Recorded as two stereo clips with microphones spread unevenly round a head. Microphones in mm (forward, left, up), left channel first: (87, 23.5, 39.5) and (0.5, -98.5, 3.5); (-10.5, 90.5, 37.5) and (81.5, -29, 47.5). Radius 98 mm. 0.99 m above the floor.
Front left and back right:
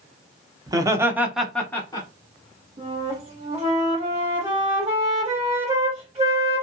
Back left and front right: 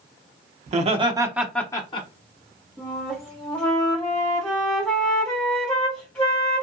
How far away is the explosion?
No explosion in this recording.